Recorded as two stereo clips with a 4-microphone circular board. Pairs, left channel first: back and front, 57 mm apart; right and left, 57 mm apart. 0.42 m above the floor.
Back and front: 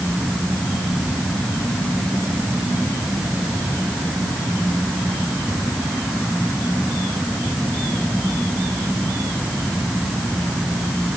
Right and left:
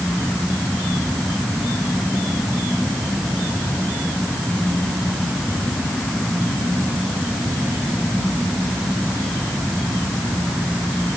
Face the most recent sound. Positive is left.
No sound to turn to.